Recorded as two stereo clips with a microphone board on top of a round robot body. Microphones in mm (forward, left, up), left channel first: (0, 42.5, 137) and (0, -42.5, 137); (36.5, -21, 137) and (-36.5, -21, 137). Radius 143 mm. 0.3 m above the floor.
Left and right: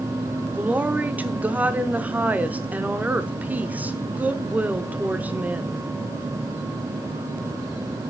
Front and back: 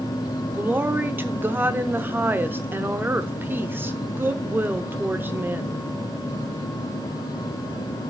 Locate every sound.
0.5 s a woman speaking: 145° right, 0.9 m